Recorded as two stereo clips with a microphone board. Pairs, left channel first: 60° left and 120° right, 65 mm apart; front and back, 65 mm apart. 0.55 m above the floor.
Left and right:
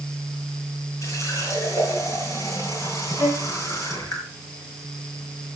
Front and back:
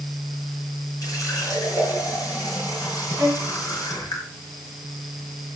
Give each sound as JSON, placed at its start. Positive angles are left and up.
{"t": 1.0, "sound": "a running tap", "azimuth_deg": 25, "distance_m": 7.0}
{"t": 3.2, "sound": "a violin", "azimuth_deg": 85, "distance_m": 5.0}